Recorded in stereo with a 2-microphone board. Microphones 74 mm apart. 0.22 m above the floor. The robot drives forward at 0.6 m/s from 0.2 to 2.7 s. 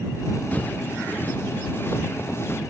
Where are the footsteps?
25° left (ahead or behind); by 2.6 s 35° left (ahead or behind).